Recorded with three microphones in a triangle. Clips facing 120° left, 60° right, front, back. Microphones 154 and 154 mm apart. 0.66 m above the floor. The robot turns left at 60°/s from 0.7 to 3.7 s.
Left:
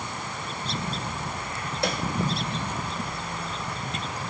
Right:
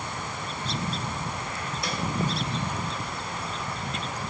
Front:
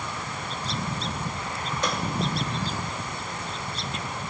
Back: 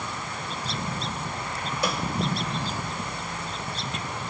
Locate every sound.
1.8 s a snare drum: 100° left, 1.9 m; by 2.0 s 90° left, 1.9 m